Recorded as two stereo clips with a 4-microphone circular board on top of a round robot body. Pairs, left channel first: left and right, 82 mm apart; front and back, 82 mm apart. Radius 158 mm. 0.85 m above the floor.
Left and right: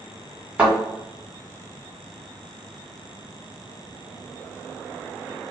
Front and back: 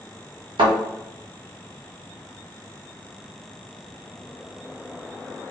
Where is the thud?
165° right, 2.0 m.